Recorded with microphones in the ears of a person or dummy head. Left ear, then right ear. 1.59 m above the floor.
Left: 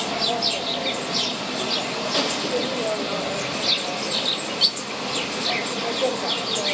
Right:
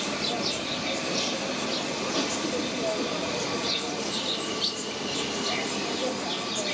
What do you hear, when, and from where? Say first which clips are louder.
0.0 s an insect: left 6 dB; 20° left (ahead or behind), 0.9 m